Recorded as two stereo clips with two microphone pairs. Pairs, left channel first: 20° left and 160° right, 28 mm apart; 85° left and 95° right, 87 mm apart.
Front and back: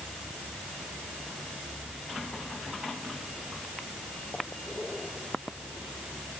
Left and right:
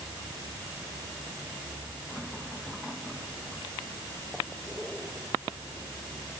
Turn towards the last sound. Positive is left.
No sound to turn to.